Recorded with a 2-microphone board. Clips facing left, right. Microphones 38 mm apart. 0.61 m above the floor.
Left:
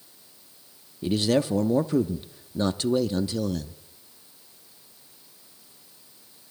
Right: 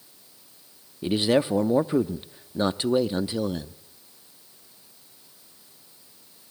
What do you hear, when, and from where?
1.0 s a man speaking: 25° right (ahead or behind), 0.8 m